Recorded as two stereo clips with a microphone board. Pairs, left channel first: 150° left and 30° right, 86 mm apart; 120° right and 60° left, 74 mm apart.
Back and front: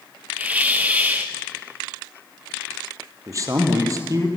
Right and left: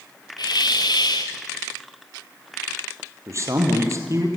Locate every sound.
0.4 s a hiss: 100° right, 1.9 m
3.3 s a man speaking: 15° left, 4 m